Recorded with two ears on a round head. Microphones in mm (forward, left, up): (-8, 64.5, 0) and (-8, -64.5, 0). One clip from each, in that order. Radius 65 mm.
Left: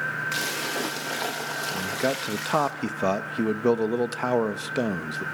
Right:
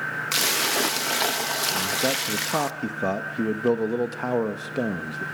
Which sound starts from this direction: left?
A man speaking, at 1.7 s.